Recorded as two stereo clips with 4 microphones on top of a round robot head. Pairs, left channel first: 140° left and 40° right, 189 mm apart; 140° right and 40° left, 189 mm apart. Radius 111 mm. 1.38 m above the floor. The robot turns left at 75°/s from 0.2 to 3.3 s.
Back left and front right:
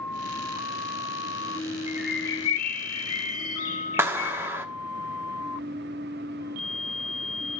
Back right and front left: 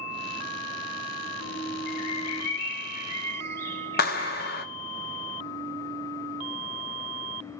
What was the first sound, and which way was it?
A bird, 110° right.